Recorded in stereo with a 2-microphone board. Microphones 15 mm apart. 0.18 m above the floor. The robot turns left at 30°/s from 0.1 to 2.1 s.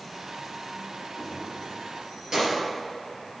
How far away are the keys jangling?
About 2.5 m.